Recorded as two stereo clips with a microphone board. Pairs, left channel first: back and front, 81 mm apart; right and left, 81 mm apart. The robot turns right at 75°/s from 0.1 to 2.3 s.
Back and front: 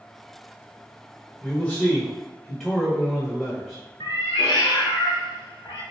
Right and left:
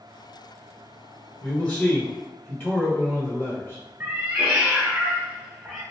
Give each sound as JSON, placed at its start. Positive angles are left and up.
{"t": 1.4, "sound": "a man speaking", "azimuth_deg": -165, "distance_m": 1.5}
{"t": 4.0, "sound": "a cat meowing", "azimuth_deg": 165, "distance_m": 0.9}